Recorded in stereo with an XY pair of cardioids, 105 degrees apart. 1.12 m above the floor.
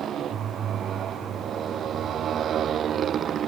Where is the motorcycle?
60° right; by 3.5 s 55° right.